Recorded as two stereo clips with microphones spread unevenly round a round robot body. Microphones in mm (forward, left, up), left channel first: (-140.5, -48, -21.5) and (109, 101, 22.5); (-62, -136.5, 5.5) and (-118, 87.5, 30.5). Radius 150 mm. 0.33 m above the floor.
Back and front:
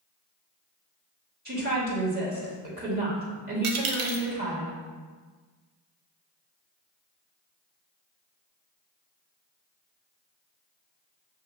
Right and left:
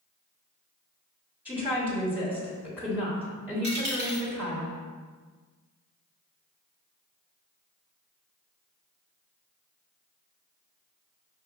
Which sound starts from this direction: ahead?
A woman speaking, at 1.4 s.